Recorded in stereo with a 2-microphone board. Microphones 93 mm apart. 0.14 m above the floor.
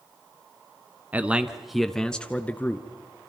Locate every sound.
1.1 s a man speaking: 20° right (ahead or behind), 1.1 m; by 2.9 s 20° left (ahead or behind), 1.6 m